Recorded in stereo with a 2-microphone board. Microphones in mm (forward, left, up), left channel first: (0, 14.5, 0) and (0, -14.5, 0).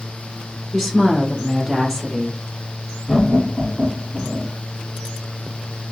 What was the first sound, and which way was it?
A woman speaking, 10° right (ahead or behind).